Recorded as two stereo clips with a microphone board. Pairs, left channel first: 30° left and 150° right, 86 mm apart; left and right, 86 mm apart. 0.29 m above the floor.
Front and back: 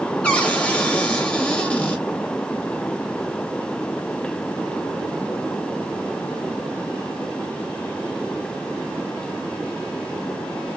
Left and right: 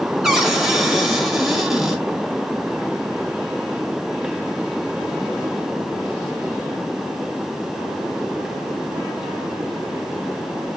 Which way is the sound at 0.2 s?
15° right.